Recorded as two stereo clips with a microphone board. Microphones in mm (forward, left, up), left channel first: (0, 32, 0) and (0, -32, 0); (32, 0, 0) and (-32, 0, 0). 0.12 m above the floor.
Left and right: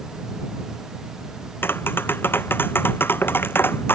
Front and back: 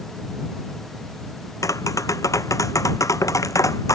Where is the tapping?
35° left.